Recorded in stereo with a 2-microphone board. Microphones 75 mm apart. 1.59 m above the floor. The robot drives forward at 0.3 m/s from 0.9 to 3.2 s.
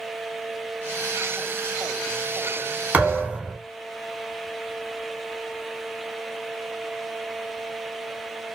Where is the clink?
No clink in this recording.